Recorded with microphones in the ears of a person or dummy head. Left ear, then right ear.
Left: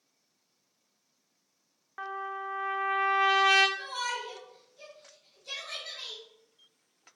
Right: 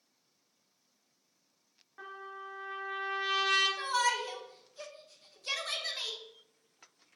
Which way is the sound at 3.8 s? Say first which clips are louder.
Right 4 dB; 65° right (ahead or behind).